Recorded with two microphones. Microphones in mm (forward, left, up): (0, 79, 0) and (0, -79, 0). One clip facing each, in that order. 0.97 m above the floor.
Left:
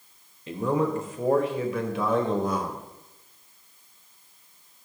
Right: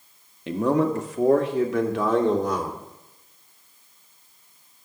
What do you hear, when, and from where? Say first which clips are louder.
0.5 s a man speaking: right 4 dB; 80° right, 1.4 m; by 2.8 s 75° right (ahead or behind), 2.5 m